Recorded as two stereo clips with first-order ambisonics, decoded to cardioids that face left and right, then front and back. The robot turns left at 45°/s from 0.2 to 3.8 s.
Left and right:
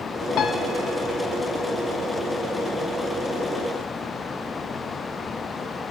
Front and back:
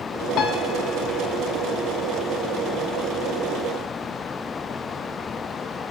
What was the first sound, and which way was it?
A piano, 45° left.